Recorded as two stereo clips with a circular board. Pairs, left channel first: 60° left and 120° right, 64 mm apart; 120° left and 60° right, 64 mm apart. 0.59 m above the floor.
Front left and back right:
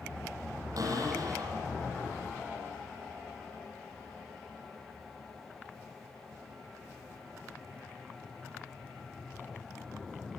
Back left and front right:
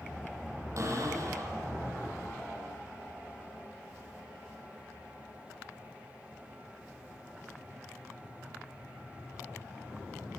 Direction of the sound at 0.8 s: 95° right.